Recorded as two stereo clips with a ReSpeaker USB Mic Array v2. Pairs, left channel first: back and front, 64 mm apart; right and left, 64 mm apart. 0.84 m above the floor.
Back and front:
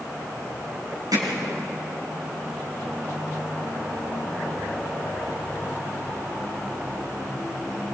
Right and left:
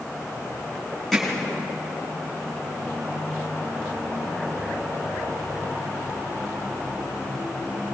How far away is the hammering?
About 6 m.